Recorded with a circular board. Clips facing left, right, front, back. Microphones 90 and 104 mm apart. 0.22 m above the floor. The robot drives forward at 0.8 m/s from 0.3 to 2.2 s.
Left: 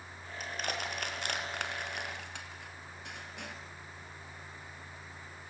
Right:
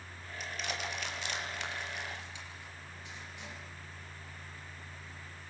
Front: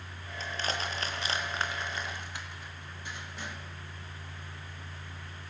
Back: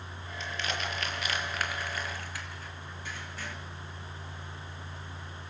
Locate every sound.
0.4 s crushing: 50° left, 4.5 m; by 3.6 s 70° left, 4 m